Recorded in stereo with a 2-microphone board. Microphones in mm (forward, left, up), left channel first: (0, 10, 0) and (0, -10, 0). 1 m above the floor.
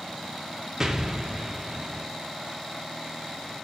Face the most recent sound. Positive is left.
turn(degrees=-30)  # may be behind; listen again after turning